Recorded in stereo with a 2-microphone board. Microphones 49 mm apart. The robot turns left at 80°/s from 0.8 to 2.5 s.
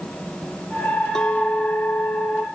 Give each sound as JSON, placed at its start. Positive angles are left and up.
{"t": 1.1, "sound": "a clink", "azimuth_deg": 165}